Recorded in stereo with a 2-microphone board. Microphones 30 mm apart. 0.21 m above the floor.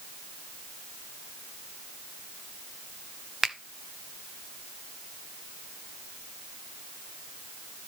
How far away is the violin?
No violin in this recording.